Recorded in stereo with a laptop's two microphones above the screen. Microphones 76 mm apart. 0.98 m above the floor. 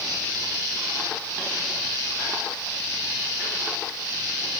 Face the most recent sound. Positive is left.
No sound to turn to.